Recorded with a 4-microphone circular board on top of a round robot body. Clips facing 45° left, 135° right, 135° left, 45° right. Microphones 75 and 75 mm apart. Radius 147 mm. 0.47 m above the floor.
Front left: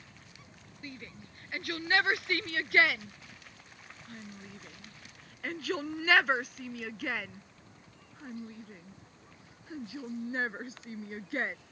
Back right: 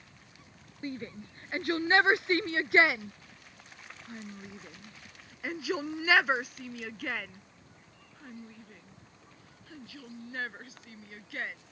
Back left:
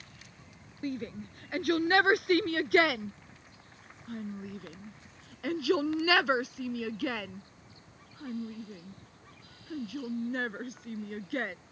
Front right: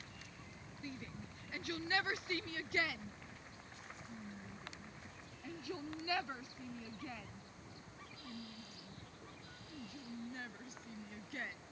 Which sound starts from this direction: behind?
A shout, at 0.8 s.